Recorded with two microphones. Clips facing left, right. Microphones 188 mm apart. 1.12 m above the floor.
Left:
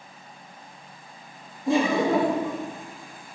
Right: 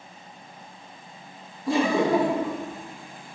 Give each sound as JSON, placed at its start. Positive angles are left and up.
{"t": 1.7, "sound": "laughter", "side_deg": 25, "distance_m": 1.6}